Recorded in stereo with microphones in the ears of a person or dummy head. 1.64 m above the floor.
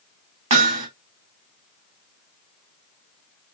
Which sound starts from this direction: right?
Hammering, at 0.5 s.